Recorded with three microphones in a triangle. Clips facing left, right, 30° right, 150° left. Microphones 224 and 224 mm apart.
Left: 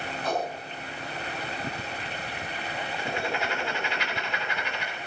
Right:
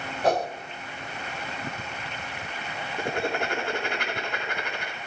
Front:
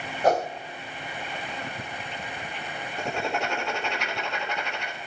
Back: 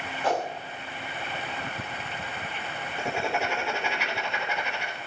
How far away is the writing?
About 3.5 m.